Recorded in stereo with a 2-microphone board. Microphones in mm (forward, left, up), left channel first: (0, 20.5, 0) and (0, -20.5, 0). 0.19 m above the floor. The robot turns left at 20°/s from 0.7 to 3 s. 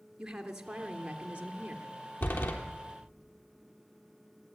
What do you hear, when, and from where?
0.2 s a woman speaking: 20° right (ahead or behind), 3 m; by 1.9 s 40° right (ahead or behind), 3 m
2.2 s a door slam: 65° left (ahead or behind), 3.5 m; by 2.5 s 70° left (ahead or behind), 3.5 m